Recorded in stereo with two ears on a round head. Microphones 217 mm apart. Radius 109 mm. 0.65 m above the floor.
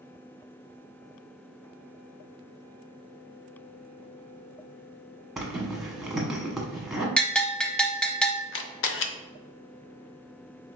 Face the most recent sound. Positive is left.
turn(degrees=50)  # may be behind; listen again after turning